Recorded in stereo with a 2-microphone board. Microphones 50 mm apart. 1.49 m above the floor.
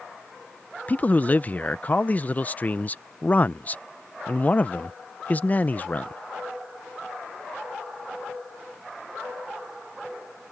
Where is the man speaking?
35° left (ahead or behind).